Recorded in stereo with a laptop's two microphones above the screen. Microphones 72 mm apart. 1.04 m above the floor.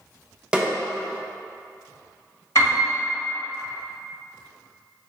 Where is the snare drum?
15° right (ahead or behind), 0.6 m.